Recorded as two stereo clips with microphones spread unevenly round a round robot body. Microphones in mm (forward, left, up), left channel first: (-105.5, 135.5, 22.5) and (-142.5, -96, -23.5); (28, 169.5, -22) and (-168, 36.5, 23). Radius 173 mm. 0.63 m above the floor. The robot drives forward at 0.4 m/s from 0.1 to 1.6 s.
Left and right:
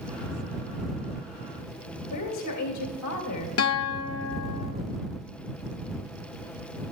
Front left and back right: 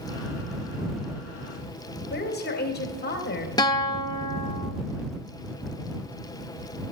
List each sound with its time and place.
2.1 s a woman speaking: 75° left, 2 m
3.6 s a guitar: 105° left, 1.0 m